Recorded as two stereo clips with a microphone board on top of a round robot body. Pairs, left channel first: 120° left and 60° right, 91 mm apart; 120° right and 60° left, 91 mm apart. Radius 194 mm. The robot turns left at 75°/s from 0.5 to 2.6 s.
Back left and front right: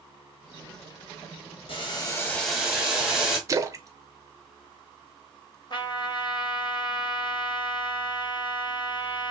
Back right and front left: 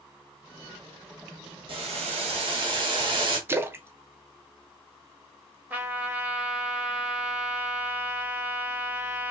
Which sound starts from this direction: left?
Boiling, at 1.7 s.